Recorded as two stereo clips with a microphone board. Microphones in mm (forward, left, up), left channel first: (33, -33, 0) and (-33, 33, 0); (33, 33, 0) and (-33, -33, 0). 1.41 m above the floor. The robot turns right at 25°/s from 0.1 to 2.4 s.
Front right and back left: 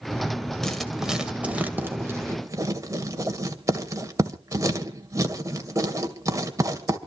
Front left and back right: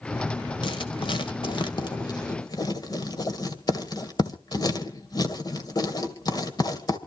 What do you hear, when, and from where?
0.6 s writing: 40° left, 1.9 m; by 7.0 s 85° left, 1.9 m